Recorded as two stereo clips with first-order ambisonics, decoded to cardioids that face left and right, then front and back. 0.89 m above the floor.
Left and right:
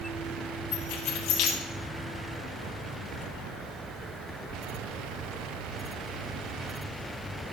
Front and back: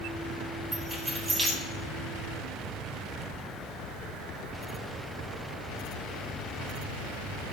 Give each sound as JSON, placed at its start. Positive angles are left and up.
{"t": 0.7, "sound": "keys jangling", "azimuth_deg": 100, "distance_m": 1.9}